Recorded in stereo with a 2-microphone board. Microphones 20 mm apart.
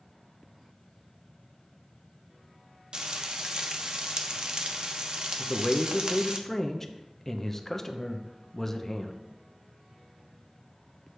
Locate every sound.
2.9 s frying: 50° right (ahead or behind), 0.7 m
5.4 s a man speaking: 20° left (ahead or behind), 0.6 m